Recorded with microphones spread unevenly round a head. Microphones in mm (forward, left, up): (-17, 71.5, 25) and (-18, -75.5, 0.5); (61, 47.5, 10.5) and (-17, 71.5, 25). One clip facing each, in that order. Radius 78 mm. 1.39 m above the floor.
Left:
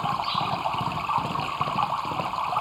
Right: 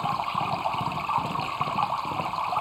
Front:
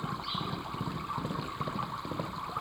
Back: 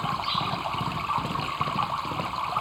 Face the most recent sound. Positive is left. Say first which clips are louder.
# left 1 dB, back 8 dB
turn(degrees=-175)